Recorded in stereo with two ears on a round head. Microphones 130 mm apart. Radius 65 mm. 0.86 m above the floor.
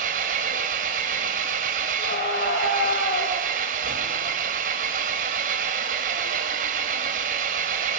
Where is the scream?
75° left (ahead or behind), 4 m.